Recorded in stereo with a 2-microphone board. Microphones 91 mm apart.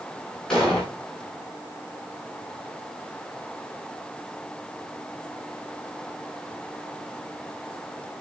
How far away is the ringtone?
No ringtone in this recording.